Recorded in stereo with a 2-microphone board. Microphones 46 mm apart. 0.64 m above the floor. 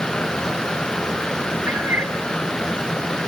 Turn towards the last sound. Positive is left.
turn(degrees=-50)  # may be behind; listen again after turning